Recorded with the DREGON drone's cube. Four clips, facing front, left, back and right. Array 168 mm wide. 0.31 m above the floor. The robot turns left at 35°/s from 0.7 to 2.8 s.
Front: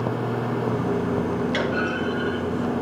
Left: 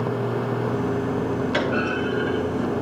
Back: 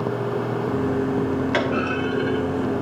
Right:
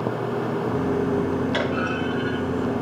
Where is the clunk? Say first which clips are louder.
Left 1 dB, back 2 dB; 170° left, 2.5 m; by 2.8 s 130° left, 2.5 m.